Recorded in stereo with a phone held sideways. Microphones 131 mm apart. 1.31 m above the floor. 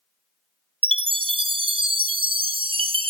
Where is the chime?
45° right (ahead or behind), 0.7 m.